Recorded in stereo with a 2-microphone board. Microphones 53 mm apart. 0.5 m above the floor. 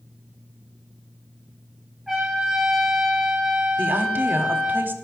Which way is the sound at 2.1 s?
Centre (ahead or behind).